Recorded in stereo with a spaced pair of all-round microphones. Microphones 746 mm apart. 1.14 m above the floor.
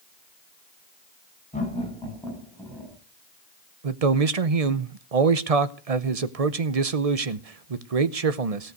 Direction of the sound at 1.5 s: 10° left (ahead or behind).